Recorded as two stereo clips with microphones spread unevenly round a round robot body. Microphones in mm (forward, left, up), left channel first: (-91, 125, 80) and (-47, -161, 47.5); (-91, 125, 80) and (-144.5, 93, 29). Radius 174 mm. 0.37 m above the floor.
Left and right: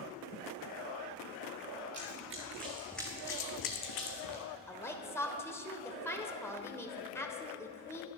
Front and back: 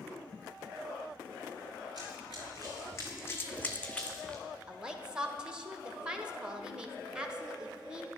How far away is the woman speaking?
About 1.4 m.